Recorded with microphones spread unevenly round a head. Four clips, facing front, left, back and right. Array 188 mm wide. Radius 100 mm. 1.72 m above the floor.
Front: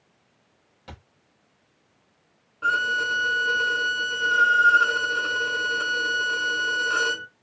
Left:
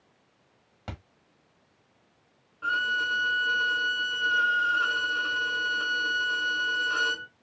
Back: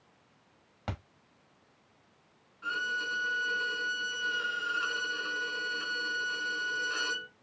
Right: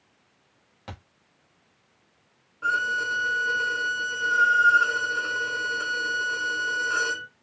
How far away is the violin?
About 0.6 m.